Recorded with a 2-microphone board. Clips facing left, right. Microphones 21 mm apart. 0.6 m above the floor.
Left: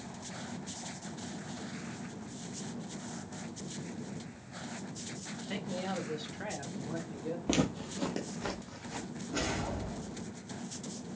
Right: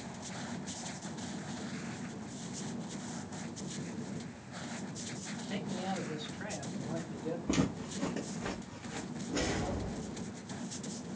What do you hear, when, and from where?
5.5 s a man speaking: 55° left (ahead or behind), 1.6 m; by 7.4 s 5° left (ahead or behind), 1.1 m
7.5 s footsteps: 50° left (ahead or behind), 0.9 m; by 9.1 s 70° left (ahead or behind), 1.7 m
9.3 s a whoosh: 20° left (ahead or behind), 2.5 m